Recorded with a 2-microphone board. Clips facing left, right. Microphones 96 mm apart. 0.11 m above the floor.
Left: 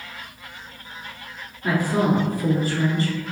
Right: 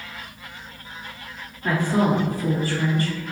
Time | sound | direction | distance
1.6 | a woman speaking | 10° left (ahead or behind) | 1.7 m